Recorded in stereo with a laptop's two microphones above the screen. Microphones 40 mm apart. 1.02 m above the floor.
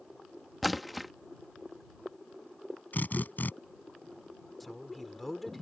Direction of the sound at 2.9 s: 55° left (ahead or behind).